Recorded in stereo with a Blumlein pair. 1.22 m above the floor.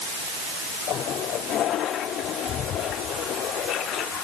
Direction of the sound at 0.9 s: 30° left.